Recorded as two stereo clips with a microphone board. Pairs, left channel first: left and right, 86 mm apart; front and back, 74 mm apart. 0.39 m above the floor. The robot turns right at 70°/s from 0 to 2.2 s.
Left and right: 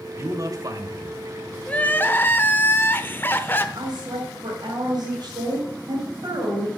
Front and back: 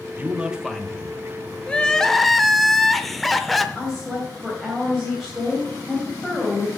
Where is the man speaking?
130° right, 1.1 m; by 1.6 s 30° right, 1.1 m.